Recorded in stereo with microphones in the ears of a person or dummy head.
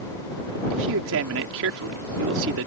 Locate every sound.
0.7 s a man speaking: 75° right (ahead or behind)